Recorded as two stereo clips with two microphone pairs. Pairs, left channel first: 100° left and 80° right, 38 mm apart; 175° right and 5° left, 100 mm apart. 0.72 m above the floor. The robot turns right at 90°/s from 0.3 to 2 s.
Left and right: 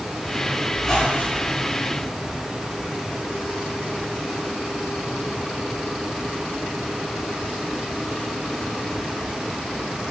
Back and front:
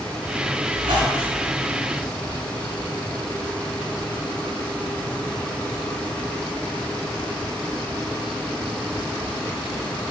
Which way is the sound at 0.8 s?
15° left.